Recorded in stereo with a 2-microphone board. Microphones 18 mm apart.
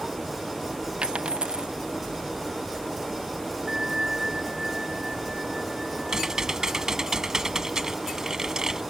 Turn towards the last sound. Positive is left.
turn(degrees=-35)  # may be behind; listen again after turning